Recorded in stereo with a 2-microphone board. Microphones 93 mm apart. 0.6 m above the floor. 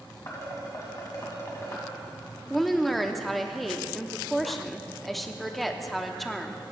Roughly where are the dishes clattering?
Left.